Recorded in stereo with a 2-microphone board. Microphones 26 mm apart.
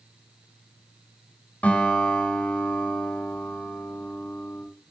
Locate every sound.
1.6 s a guitar: 80° left, 4.5 m